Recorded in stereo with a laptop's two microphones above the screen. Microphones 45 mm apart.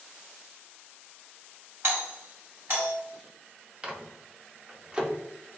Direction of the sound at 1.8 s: 60° right (ahead or behind).